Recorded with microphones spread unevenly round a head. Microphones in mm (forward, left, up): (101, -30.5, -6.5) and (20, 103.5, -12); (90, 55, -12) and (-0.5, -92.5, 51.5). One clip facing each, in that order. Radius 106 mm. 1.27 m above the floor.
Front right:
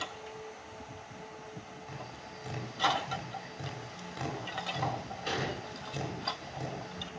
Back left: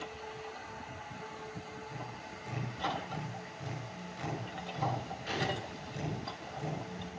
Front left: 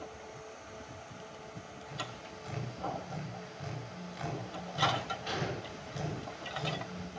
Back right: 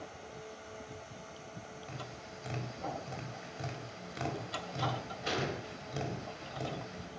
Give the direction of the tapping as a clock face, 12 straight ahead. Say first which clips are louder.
Back left 1 dB, front left 1 dB; 3 o'clock.